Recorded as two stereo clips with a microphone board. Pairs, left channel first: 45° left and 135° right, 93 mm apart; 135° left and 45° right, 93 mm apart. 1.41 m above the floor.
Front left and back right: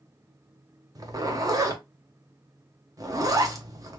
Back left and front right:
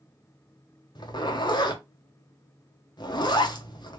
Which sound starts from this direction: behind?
A zipper, at 0.9 s.